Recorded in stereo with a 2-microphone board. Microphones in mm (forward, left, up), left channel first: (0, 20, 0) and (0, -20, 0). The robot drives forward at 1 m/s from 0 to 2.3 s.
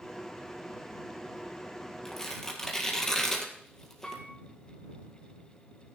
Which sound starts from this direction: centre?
Tearing paper, at 2.0 s.